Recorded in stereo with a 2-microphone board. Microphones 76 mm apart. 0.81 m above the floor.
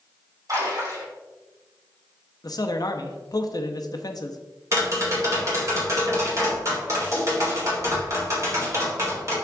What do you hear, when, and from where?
0.5 s a splash: 50° right (ahead or behind), 3 m
2.4 s a man speaking: 55° left (ahead or behind), 0.6 m
4.7 s tapping: 40° right (ahead or behind), 2.5 m